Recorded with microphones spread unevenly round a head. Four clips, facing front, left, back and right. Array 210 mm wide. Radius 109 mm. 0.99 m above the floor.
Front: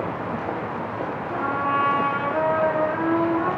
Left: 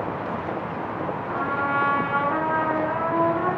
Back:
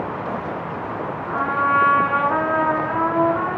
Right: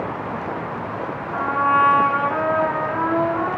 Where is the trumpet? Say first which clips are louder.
Right 7 dB, back 5 dB; 165° right, 5 m.